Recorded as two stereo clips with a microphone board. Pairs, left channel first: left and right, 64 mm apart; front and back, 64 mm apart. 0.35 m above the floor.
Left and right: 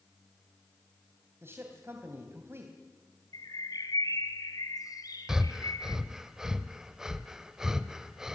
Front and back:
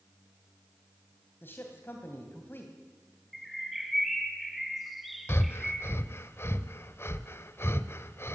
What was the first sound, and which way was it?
A man speaking, 50° right.